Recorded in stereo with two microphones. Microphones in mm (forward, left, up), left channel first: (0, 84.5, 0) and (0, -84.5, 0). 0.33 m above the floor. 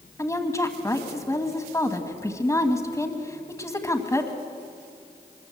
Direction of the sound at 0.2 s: 15° left (ahead or behind).